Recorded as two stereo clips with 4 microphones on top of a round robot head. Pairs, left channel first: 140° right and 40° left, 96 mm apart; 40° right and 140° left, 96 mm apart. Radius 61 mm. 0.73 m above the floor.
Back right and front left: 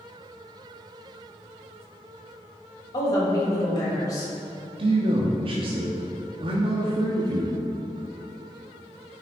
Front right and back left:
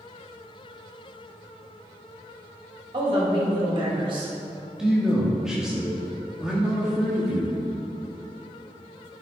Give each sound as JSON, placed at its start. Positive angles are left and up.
{"t": 2.9, "sound": "a woman speaking", "azimuth_deg": 170, "distance_m": 3.0}
{"t": 4.8, "sound": "a man speaking", "azimuth_deg": 55, "distance_m": 1.2}